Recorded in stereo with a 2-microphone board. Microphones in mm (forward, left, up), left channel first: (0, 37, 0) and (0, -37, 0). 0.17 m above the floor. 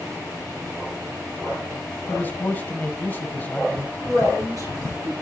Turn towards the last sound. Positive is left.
turn(degrees=-55)  # may be behind; listen again after turning